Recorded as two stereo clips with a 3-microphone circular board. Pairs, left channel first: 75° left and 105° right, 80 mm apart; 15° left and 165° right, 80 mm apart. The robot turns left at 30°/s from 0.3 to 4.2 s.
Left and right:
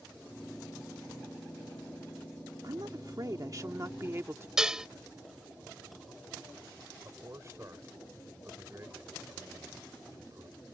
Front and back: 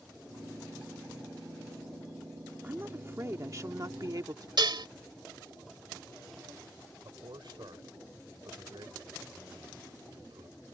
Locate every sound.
2.6 s a woman speaking: 105° right; by 4.5 s 150° right
4.6 s dishes clattering: 175° left
7.0 s a man speaking: 150° right